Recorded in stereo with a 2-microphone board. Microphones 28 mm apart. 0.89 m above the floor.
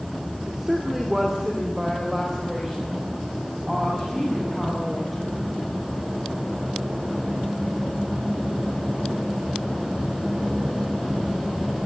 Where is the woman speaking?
15° right (ahead or behind), 2 m; by 5.4 s 5° right (ahead or behind), 8 m.